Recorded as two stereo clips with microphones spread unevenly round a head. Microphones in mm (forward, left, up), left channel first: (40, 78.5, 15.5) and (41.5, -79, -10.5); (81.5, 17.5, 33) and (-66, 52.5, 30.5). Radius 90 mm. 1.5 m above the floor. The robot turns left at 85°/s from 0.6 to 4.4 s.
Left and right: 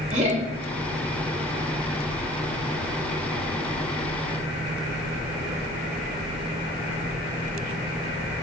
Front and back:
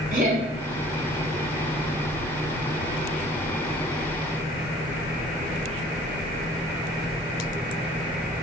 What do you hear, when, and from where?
0.1 s laughter: 145° right, 0.8 m